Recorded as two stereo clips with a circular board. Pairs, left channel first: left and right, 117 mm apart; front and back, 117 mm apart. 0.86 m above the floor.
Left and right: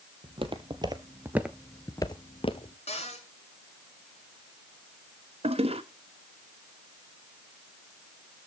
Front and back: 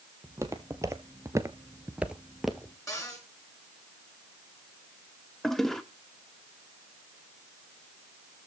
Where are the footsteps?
120° right, 1.7 m; by 2.8 s 90° left, 1.4 m.